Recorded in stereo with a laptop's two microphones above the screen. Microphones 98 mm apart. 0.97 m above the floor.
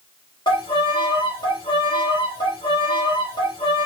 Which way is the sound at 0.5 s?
50° left (ahead or behind).